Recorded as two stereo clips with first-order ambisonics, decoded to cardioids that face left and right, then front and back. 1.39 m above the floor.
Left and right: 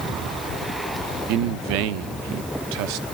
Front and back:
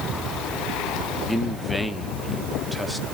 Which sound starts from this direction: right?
A man speaking, at 1.3 s.